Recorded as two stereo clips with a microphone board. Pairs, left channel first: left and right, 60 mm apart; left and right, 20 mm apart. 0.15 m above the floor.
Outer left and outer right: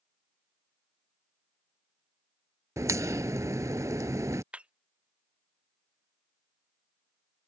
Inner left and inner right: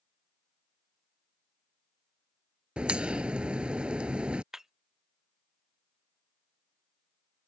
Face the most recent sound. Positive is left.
turn(degrees=-20)  # may be behind; listen again after turning